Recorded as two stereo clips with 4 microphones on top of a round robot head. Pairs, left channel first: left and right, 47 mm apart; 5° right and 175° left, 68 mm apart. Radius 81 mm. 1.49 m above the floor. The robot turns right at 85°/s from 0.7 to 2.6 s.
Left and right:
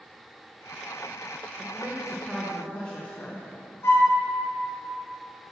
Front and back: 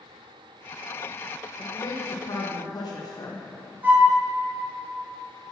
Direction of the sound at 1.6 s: 55° right.